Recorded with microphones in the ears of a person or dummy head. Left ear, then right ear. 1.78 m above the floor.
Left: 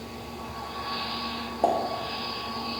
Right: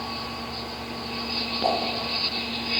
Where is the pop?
35° left (ahead or behind), 0.7 m.